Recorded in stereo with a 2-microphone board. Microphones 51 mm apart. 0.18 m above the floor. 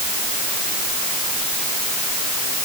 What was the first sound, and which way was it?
Only background noise.